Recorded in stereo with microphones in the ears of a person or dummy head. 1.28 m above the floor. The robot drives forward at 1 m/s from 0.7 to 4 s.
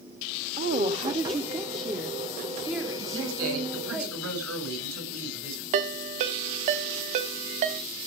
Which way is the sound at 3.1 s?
85° right.